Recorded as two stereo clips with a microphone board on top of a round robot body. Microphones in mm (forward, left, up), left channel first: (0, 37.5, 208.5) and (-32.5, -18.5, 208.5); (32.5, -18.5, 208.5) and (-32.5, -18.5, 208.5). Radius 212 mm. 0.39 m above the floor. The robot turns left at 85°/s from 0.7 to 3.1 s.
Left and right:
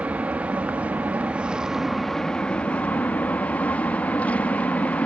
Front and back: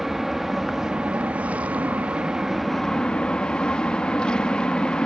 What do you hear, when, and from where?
0.0 s an aircraft: 100° right; by 5.1 s 55° left